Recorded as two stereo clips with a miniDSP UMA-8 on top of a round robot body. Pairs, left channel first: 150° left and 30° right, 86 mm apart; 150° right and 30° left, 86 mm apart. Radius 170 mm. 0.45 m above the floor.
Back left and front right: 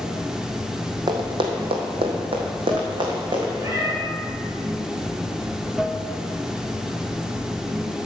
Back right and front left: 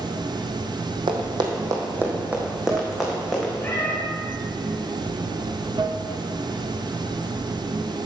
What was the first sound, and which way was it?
Running water, 55° left.